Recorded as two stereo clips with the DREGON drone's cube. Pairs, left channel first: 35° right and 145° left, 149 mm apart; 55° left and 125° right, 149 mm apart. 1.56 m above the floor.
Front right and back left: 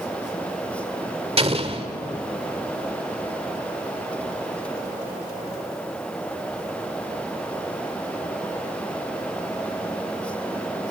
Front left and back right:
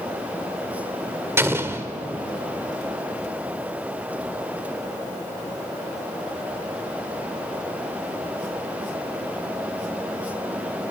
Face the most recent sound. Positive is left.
turn(degrees=170)